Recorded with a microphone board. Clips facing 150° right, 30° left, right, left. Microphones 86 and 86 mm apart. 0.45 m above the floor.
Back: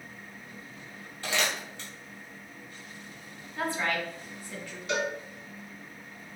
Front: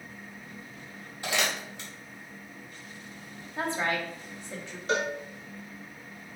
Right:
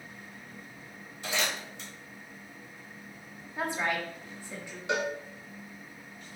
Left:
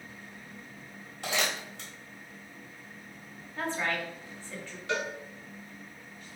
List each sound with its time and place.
1.2 s crumpling: 105° left, 1.6 m
3.6 s a woman speaking: 20° right, 0.8 m
4.9 s a cowbell: 20° right, 0.5 m